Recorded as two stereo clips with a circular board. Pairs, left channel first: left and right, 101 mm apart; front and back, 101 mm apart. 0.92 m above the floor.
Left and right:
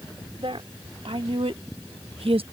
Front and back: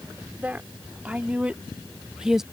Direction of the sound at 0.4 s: 110° right.